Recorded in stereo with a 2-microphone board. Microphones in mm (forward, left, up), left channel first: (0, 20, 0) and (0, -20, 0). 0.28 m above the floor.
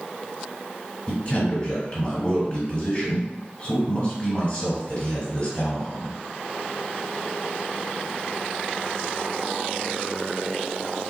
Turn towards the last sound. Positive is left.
turn(degrees=40)  # may be behind; listen again after turning